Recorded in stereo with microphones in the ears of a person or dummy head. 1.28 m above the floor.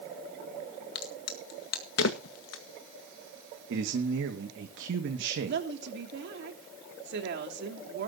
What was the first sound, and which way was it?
A crack, 65° left (ahead or behind).